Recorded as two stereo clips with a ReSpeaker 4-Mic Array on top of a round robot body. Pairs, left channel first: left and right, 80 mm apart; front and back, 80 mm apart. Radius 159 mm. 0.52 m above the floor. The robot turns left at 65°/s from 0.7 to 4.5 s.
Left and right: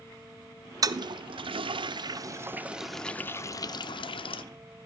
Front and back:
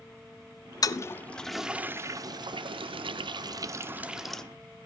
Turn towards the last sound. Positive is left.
turn(degrees=75)